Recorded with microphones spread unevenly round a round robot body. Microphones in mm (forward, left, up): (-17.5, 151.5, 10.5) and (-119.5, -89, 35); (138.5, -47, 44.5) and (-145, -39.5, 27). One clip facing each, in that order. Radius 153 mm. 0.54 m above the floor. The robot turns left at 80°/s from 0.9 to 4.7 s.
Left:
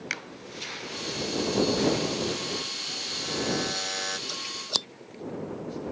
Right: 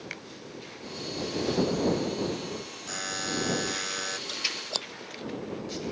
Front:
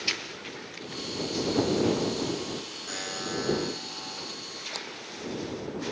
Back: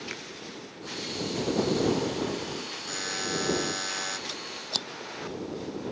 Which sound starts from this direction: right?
A buzzer, at 2.9 s.